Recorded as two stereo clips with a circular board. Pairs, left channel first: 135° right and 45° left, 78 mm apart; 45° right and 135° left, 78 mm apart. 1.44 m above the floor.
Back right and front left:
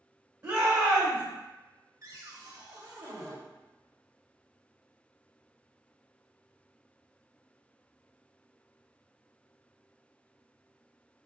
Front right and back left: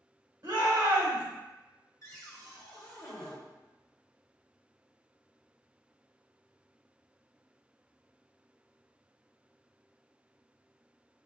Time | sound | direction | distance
0.4 | a shout | 115° left | 1.6 m
2.0 | a cupboard door | straight ahead | 0.8 m